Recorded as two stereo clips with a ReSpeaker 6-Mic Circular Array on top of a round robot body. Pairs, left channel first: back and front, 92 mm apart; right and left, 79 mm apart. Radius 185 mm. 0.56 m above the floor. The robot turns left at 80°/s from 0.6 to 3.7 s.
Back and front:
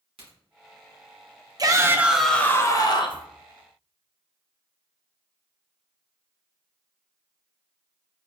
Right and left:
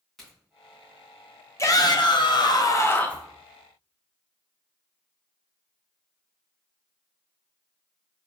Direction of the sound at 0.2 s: Straight ahead.